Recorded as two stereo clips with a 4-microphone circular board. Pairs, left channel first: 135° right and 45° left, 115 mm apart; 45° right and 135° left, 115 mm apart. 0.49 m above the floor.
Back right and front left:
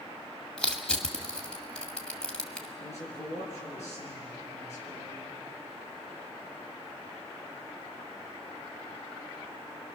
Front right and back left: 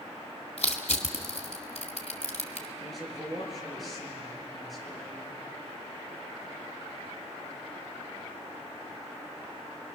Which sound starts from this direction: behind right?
A man speaking, at 2.8 s.